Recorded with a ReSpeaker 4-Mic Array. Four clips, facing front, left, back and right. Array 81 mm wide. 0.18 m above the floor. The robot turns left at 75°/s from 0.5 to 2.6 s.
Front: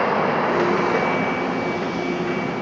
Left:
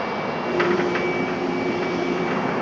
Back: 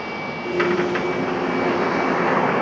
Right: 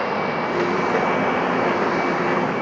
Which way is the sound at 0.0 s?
20° right.